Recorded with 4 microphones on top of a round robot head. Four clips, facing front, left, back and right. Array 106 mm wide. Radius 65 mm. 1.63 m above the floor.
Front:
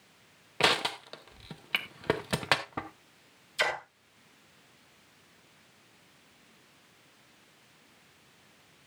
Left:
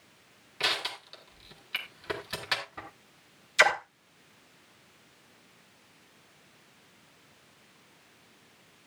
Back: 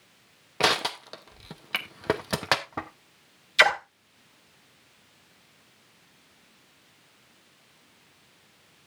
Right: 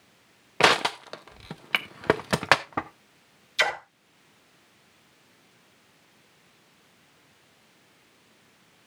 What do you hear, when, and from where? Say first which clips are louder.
0.6 s crushing: right 13 dB, back 3 dB; 100° right, 0.9 m
3.6 s a splash: left 3 dB, back 9 dB; 150° left, 1.5 m